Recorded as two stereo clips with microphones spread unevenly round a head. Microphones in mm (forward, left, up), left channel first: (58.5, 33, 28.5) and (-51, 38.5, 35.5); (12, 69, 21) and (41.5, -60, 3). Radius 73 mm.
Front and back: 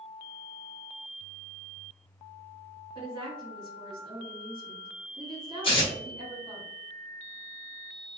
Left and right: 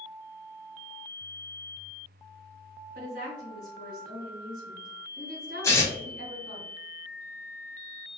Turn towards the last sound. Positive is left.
turn(degrees=30)